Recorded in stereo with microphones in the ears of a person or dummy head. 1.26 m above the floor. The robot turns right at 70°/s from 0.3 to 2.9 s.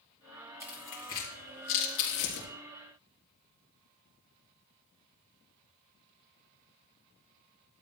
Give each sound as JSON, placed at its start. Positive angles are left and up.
{"t": 0.6, "sound": "tearing paper", "side_deg": -20, "distance_m": 4.0}